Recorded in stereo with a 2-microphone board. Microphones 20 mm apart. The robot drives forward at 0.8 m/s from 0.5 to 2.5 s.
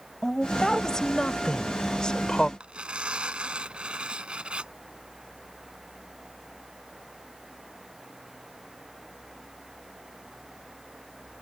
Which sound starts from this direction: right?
Tearing paper, at 2.6 s.